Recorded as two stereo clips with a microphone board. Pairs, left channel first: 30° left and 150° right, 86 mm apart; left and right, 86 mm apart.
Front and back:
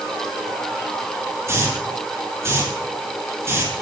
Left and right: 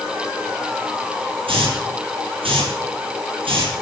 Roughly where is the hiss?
Right.